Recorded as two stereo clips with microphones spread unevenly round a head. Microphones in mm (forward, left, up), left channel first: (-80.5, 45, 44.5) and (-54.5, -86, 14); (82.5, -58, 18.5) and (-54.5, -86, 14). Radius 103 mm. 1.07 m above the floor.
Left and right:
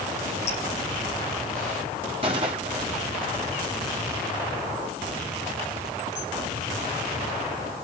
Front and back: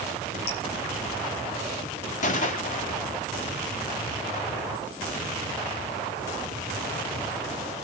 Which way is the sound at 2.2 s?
15° right.